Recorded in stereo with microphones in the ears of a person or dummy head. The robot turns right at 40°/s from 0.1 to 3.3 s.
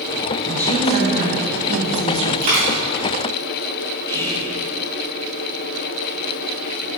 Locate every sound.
0.5 s a woman speaking: 170° right, 1.4 m; by 2.3 s 95° right, 1.4 m
2.4 s a dropped coin: 35° right (ahead or behind), 2.5 m; by 2.8 s 45° right (ahead or behind), 2.5 m
4.1 s whispering: 15° left (ahead or behind), 1.9 m